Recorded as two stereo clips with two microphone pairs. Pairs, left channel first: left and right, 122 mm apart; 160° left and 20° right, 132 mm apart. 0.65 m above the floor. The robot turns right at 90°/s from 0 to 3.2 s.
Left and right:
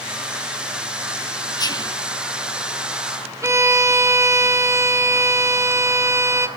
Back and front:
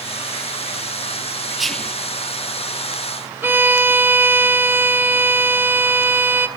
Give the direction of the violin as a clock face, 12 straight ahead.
2 o'clock.